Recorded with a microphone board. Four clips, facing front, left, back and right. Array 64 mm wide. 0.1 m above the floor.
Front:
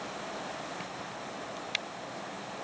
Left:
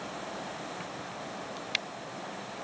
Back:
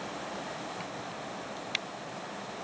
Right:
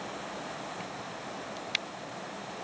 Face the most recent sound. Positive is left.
No sound to turn to.